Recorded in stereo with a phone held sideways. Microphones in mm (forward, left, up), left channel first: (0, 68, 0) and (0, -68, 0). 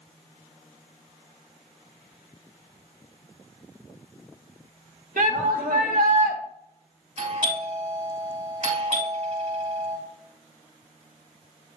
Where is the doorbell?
55° right (ahead or behind), 3.5 m.